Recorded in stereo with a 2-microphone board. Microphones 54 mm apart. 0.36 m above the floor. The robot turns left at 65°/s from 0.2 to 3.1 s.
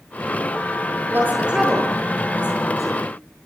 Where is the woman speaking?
45° right (ahead or behind), 8.5 m; by 3.0 s 75° left (ahead or behind), 8.5 m.